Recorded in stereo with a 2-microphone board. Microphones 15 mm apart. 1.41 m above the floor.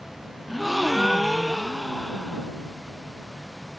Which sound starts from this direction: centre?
A gasp, at 0.5 s.